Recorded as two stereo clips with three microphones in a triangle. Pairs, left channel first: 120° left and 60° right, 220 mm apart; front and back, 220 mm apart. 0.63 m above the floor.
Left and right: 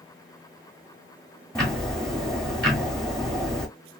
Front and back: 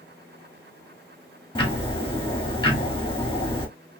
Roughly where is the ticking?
Ahead left.